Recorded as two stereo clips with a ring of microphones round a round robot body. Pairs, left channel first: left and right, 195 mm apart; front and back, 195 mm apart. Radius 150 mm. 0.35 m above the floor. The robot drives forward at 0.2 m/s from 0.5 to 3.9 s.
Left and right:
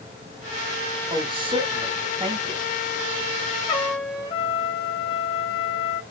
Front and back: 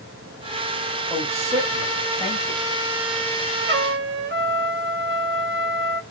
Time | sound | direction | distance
1.1 | a woman speaking | 115° right | 1.4 m
3.7 | a trumpet | 160° left | 1.0 m